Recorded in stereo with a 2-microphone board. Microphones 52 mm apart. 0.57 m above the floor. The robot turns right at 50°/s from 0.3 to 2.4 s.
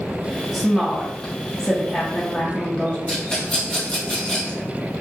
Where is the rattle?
30° left (ahead or behind), 1.4 m.